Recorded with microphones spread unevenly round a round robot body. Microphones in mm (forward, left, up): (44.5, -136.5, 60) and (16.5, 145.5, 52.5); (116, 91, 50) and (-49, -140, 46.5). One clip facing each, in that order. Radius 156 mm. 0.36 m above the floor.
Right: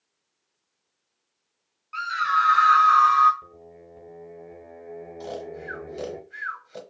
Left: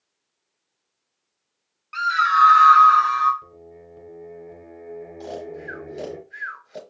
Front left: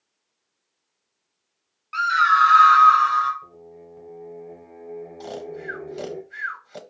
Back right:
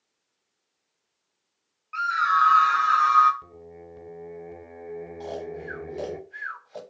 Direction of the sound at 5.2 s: Straight ahead.